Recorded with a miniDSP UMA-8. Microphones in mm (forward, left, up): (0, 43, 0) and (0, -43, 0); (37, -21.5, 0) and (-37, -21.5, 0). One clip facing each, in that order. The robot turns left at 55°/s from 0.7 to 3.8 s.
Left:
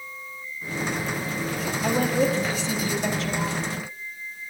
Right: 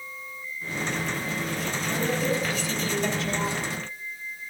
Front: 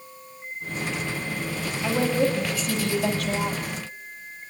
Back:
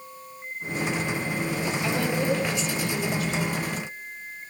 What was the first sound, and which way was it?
A woman speaking, 75° left.